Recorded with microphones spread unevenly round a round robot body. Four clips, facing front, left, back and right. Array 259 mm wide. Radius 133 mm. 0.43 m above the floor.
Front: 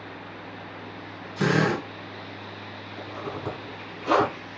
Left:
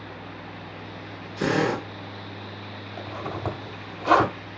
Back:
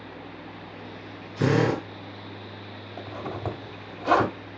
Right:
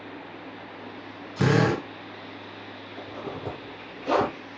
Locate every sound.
1.4 s a drill: 105° right, 2 m
3.0 s a zipper: 100° left, 1.4 m